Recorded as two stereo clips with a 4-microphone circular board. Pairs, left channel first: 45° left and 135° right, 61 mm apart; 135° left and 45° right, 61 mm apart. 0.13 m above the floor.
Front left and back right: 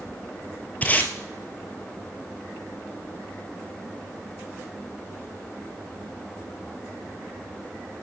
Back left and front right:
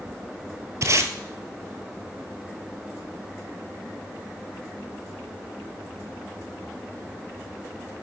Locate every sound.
0.8 s tape being pulled: 15° right, 1.1 m